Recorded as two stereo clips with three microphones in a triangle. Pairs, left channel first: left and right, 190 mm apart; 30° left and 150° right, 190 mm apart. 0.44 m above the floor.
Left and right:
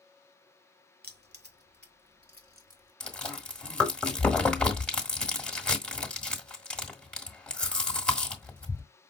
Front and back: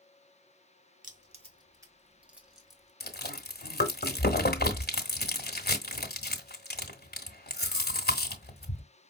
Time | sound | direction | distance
1.0 | keys jangling | 110° right | 1.1 m
3.0 | chewing | 5° left | 1.4 m